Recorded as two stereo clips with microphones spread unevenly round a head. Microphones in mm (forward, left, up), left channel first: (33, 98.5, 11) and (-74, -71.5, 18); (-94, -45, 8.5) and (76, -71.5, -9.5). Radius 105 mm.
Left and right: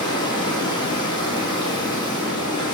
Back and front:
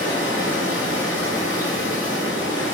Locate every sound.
0.0 s running water: 130° left, 2 m